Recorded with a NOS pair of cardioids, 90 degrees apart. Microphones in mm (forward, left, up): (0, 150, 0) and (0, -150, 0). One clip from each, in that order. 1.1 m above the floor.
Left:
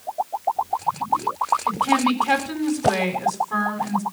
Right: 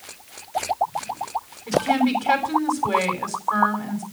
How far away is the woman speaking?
About 7.5 m.